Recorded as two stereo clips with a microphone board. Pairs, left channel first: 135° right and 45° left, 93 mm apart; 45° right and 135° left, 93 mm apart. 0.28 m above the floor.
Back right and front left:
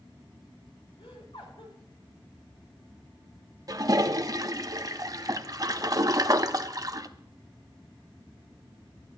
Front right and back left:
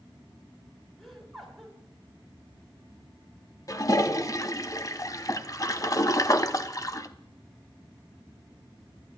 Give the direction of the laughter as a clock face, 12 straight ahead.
5 o'clock.